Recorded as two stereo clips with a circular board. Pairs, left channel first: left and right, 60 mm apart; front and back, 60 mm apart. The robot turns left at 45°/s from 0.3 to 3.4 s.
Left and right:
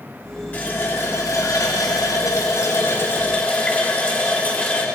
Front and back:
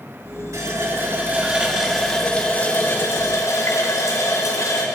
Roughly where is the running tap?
Behind.